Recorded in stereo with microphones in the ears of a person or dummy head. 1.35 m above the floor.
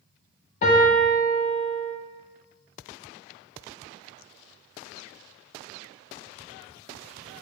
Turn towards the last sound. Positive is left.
turn(degrees=30)  # may be behind; listen again after turning